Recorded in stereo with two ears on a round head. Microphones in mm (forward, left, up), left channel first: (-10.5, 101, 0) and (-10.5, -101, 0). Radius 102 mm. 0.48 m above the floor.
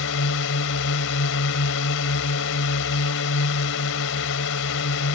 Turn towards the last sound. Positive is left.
turn(degrees=60)  # may be behind; listen again after turning